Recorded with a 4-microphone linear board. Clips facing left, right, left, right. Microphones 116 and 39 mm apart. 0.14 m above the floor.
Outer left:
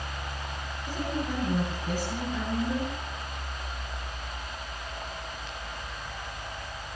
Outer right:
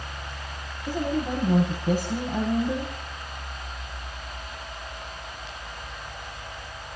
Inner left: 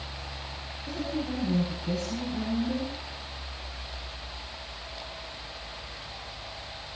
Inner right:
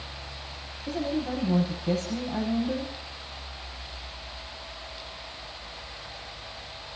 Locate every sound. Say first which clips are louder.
0.9 s a woman speaking: outer right 5 dB, inner right 3 dB; 55° right (ahead or behind), 6.5 m